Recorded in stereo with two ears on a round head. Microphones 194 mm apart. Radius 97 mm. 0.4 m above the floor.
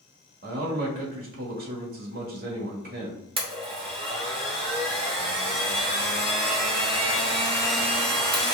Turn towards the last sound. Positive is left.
turn(degrees=-25)  # may be behind; listen again after turning